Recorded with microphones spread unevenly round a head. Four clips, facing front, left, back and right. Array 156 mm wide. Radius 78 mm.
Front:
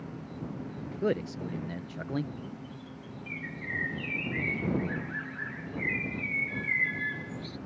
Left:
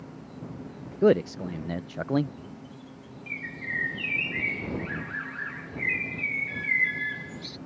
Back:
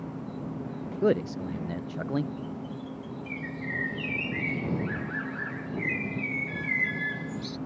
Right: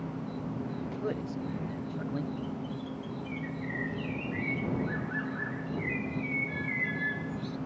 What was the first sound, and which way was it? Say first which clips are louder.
An insect: right 5 dB, back 4 dB; 140° right.